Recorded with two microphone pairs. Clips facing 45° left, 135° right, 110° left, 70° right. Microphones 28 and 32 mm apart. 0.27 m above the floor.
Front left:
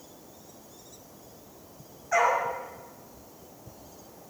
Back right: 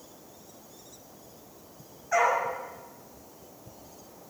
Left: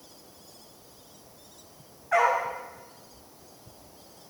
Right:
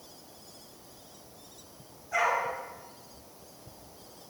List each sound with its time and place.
2.1 s a dog barking: 130° left, 5 m